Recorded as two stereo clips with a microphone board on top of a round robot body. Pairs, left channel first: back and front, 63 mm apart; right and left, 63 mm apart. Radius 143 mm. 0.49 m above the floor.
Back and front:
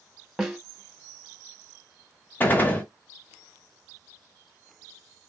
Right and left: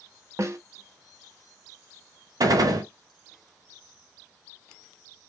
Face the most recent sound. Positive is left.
turn(degrees=120)